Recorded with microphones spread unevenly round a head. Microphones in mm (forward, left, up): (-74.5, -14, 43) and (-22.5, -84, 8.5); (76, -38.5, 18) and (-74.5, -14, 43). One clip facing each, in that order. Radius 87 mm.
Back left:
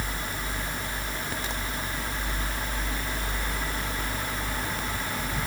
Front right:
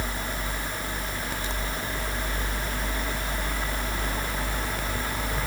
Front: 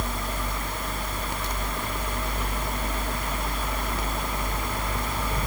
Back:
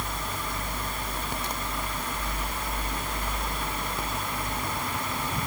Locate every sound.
Only background noise.